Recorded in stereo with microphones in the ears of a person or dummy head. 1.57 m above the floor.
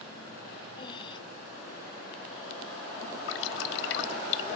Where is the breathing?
20° left (ahead or behind).